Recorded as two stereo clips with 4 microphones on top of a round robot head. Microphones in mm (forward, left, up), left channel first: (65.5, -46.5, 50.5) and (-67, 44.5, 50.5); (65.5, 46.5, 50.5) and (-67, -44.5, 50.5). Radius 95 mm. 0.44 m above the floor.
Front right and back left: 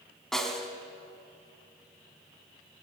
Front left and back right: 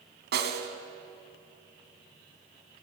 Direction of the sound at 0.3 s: 120° right.